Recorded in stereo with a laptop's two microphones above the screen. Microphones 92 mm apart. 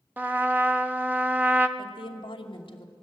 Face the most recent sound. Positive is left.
turn(degrees=70)  # may be behind; listen again after turning